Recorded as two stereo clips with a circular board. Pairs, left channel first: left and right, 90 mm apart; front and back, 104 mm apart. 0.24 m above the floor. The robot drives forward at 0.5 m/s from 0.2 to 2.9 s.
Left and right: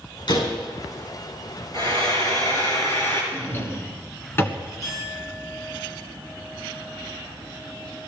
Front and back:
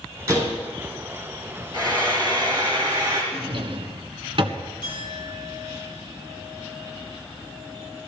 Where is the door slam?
115° left, 7.5 m.